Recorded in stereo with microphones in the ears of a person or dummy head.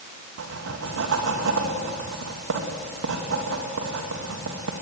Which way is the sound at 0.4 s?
70° right (ahead or behind).